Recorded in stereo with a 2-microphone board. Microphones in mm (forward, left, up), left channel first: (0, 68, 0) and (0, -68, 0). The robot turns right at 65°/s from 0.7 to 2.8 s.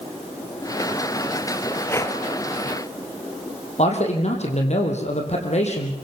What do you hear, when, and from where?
1.9 s breathing: 15° left (ahead or behind), 1.8 m; by 2.2 s 35° left (ahead or behind), 1.8 m
3.8 s a man speaking: 55° left (ahead or behind), 4.5 m